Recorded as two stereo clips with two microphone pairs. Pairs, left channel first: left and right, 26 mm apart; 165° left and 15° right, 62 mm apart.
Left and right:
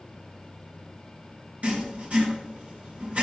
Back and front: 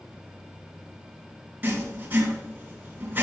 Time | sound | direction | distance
1.6 | writing | 75° right | 3 m